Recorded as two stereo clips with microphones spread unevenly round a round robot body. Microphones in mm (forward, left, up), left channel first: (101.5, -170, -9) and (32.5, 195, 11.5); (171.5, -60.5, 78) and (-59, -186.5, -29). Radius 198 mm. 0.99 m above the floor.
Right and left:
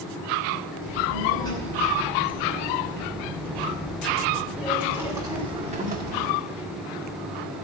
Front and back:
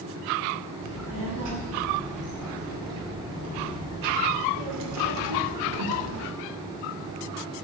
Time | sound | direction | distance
0.8 | a child speaking | 160° right | 5.5 m